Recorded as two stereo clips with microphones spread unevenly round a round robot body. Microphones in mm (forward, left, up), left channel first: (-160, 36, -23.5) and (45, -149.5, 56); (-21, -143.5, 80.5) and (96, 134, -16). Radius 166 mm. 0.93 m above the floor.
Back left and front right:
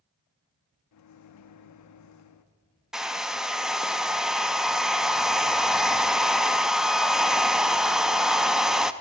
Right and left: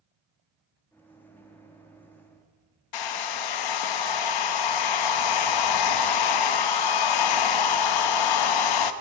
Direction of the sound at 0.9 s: 160° left.